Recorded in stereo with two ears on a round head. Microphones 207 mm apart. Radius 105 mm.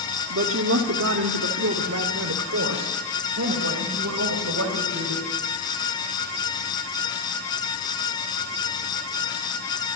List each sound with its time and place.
0.3 s a woman speaking: 55° right (ahead or behind), 1.4 m